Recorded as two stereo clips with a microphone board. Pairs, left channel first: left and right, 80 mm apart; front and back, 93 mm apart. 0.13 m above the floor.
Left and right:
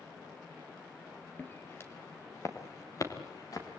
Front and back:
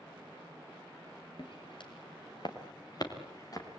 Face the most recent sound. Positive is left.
turn(degrees=50)